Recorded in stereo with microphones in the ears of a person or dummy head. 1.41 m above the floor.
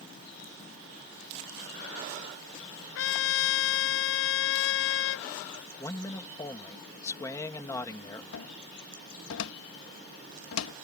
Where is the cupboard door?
85° left.